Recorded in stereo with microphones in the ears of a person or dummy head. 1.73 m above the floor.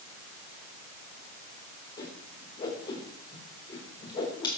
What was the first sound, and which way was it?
A whoosh, 25° left (ahead or behind).